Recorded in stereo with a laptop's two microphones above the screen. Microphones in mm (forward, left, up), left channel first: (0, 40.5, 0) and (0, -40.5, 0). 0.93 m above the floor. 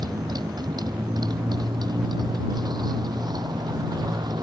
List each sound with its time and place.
0.0 s a motorcycle: 55° right (ahead or behind)